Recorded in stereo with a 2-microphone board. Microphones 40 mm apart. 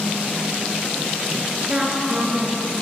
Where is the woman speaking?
20° right (ahead or behind), 2 m; by 2.8 s centre (ahead or behind), 2.5 m.